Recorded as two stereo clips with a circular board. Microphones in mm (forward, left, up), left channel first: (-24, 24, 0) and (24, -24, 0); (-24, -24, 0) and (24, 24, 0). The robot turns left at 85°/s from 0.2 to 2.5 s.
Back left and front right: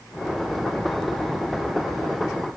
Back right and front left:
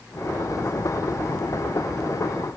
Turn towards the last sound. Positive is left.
No sound to turn to.